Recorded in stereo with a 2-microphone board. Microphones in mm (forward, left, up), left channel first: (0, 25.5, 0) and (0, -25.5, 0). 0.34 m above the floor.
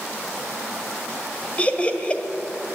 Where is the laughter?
25° left (ahead or behind), 1.5 m.